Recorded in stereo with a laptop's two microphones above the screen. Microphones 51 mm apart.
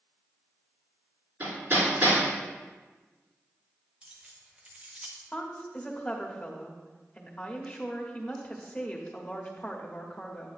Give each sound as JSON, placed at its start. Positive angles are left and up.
{"t": 1.4, "sound": "hammering", "side_deg": -35, "distance_m": 4.0}
{"t": 4.0, "sound": "keys jangling", "side_deg": -20, "distance_m": 0.9}
{"t": 5.3, "sound": "a woman speaking", "side_deg": 30, "distance_m": 1.5}